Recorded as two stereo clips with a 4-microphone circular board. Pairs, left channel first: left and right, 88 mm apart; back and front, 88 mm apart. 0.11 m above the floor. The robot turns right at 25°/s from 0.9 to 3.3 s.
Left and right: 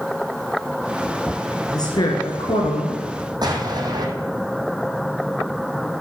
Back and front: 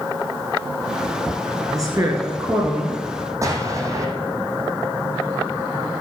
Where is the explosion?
55° right, 2 m.